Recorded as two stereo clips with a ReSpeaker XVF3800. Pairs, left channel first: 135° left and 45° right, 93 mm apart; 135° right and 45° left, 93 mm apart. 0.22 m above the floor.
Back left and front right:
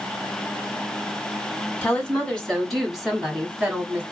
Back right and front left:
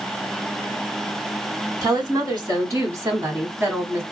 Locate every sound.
1.8 s a woman speaking: 60° left, 1.8 m; by 4.0 s 5° left, 1.4 m